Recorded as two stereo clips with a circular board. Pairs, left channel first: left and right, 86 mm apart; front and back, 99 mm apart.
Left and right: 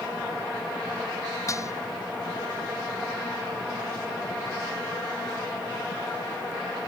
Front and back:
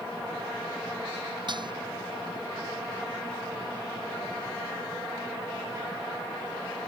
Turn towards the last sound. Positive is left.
turn(degrees=140)